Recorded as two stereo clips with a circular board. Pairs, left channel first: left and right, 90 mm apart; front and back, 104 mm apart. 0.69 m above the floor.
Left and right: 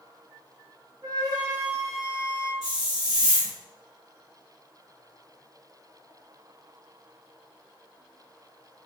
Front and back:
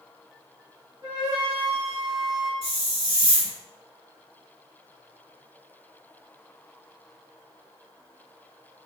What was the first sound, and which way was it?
A flute, 135° right.